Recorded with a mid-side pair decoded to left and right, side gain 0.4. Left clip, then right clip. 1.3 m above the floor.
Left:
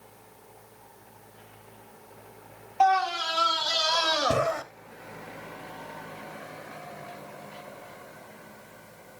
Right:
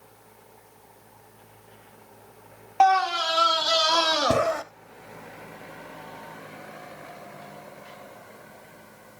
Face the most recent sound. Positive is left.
turn(degrees=-35)